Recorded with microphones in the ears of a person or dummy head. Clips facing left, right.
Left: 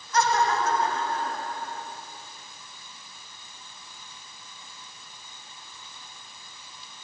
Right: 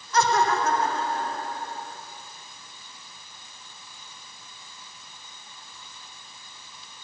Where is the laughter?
65° right (ahead or behind), 1.4 m; by 1.9 s 30° right (ahead or behind), 3.5 m.